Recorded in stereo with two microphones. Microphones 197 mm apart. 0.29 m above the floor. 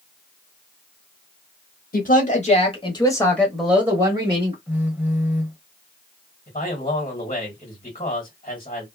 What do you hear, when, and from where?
1.9 s a woman speaking: 45° left (ahead or behind), 1.2 m; by 4.6 s 30° right (ahead or behind), 1.1 m
4.7 s a phone buzzing: 10° right (ahead or behind), 0.8 m
6.5 s a man speaking: 30° left (ahead or behind), 1.5 m